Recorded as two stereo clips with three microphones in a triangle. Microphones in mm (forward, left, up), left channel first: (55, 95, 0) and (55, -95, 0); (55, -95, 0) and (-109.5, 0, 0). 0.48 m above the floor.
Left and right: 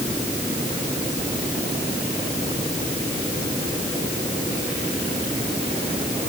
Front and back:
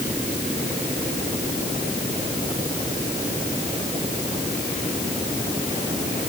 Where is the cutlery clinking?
I don't hear cutlery clinking.